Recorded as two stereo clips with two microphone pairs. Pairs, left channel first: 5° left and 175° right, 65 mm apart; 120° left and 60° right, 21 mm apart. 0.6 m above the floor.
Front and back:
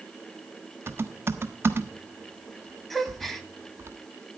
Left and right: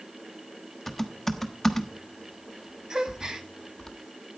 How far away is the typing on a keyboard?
About 1.4 m.